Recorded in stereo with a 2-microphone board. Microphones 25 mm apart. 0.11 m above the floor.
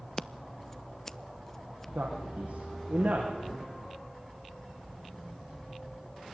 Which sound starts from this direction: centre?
Scissors, at 0.2 s.